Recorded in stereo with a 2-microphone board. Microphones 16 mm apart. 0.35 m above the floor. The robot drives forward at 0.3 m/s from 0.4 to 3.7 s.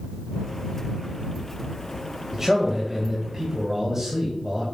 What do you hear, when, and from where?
2.3 s a man speaking: 30° right (ahead or behind), 1.6 m; by 4.6 s 25° right (ahead or behind), 1.8 m